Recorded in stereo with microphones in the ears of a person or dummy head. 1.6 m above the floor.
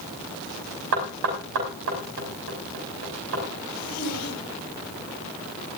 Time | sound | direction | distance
0.9 | knocking | 75° right (ahead or behind) | 5.5 m
3.7 | a zipper | 50° left (ahead or behind) | 4.5 m